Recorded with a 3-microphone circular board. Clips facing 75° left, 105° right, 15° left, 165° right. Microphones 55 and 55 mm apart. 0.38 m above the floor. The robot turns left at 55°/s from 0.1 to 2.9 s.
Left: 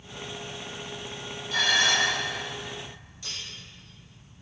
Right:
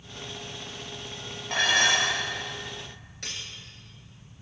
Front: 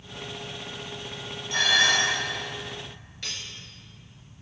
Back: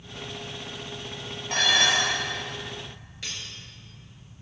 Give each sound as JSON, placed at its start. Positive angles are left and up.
{"t": 1.5, "sound": "dishes clattering", "azimuth_deg": -125, "distance_m": 6.0}
{"t": 3.2, "sound": "cutlery clinking", "azimuth_deg": -80, "distance_m": 3.5}